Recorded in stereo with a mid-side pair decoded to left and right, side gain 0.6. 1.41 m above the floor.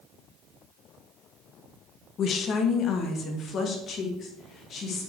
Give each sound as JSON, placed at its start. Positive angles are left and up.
{"t": 2.2, "sound": "a woman speaking", "azimuth_deg": 45, "distance_m": 0.9}